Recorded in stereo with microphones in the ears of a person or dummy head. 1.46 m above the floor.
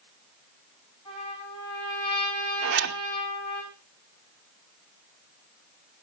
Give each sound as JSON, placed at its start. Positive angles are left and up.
{"t": 1.1, "sound": "a trumpet", "side_deg": 30, "distance_m": 9.0}
{"t": 2.6, "sound": "a zipper", "side_deg": -65, "distance_m": 1.3}